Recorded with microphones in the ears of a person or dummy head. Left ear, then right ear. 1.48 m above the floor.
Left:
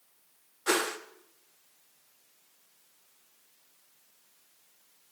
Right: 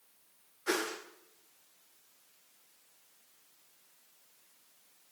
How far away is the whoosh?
About 0.7 m.